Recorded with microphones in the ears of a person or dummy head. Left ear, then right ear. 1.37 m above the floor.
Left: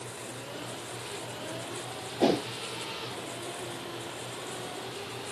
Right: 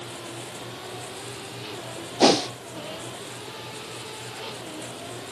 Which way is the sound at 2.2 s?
40° right (ahead or behind).